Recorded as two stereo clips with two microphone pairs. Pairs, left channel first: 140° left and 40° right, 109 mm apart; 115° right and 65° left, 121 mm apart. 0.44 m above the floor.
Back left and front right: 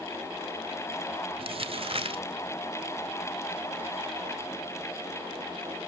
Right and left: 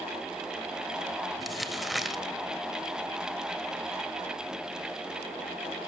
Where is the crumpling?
30° right, 2 m.